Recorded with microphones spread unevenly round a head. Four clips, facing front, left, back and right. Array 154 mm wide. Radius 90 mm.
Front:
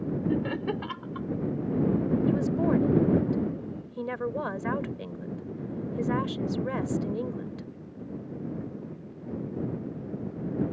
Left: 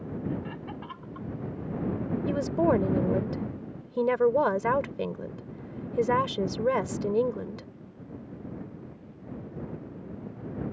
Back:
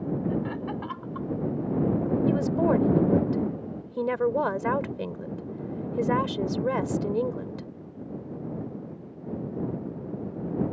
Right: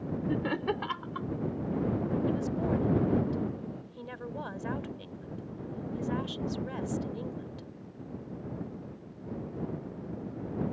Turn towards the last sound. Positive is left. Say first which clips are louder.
# left 6 dB, back 4 dB
turn(degrees=95)